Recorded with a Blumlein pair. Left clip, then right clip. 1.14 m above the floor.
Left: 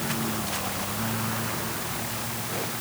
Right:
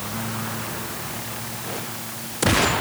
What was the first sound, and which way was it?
Only background noise.